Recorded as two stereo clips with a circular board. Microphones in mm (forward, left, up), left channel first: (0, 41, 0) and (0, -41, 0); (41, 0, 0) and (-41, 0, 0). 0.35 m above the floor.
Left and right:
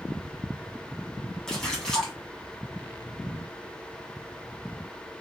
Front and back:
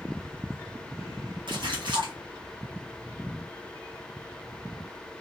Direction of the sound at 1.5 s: 170° left.